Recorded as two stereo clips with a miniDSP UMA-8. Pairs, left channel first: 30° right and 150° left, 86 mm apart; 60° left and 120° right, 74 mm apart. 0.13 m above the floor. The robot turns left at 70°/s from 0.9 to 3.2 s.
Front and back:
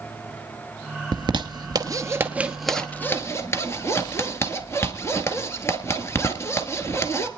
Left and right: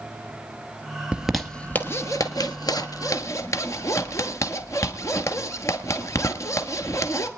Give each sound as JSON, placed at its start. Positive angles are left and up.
{"t": 1.1, "sound": "a zipper", "azimuth_deg": 165, "distance_m": 1.7}